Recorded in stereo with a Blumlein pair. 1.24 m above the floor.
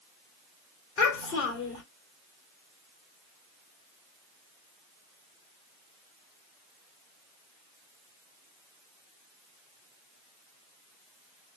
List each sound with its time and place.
1.0 s a child speaking: 35° left, 3 m